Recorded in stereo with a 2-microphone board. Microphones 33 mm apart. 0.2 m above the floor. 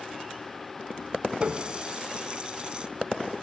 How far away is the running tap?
About 1.1 m.